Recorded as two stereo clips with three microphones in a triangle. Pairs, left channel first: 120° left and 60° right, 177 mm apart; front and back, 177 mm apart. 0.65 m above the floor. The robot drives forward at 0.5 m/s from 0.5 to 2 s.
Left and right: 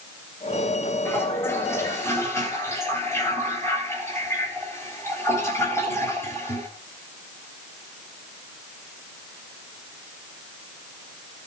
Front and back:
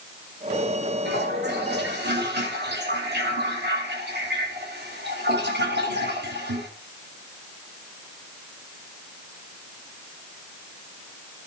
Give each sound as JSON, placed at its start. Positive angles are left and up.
{"t": 1.1, "sound": "a toilet flushing", "azimuth_deg": -160, "distance_m": 2.5}